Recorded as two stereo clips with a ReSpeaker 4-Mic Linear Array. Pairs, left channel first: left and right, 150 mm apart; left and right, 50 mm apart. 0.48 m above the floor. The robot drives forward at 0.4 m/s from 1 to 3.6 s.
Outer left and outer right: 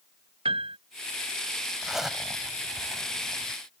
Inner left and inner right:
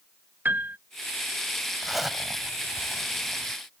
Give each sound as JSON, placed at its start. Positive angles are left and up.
{"t": 0.5, "sound": "a piano", "side_deg": -40}
{"t": 1.8, "sound": "a zipper", "side_deg": -5}